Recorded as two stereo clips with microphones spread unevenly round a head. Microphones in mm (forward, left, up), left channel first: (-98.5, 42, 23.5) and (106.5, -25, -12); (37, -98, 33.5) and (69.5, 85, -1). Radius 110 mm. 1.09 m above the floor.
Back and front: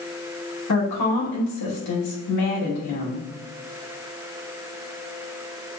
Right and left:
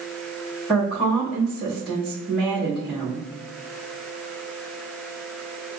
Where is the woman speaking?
170° left, 1.7 m.